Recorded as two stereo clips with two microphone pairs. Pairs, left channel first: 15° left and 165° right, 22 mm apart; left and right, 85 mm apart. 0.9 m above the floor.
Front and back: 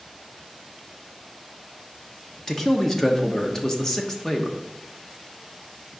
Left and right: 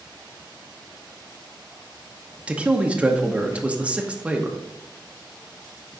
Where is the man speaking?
25° right, 1.1 m.